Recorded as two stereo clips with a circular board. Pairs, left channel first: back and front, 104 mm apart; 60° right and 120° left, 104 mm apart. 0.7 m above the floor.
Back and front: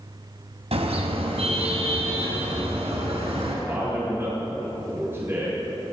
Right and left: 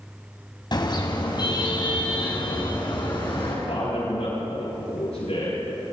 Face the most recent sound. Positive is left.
turn(degrees=-70)